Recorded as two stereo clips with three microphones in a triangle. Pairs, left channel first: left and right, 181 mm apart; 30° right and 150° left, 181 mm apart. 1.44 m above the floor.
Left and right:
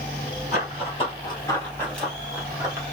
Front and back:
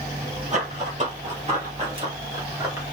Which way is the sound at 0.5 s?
125° left.